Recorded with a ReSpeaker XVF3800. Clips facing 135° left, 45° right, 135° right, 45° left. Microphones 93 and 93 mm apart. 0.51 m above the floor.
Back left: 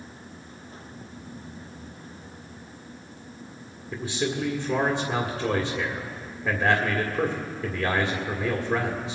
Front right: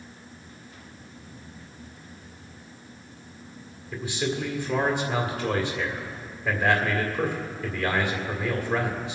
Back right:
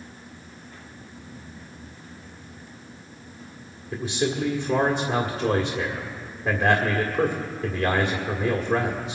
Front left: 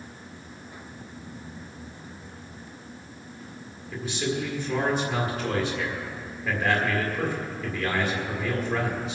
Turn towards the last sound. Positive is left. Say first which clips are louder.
# back left 1 dB, back right 3 dB
turn(degrees=180)